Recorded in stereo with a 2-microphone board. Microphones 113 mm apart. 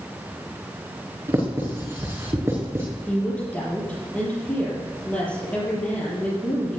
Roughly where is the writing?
Right.